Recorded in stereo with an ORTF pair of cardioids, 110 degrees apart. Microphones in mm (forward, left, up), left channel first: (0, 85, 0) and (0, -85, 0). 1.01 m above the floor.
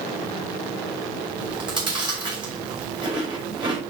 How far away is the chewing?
About 5 m.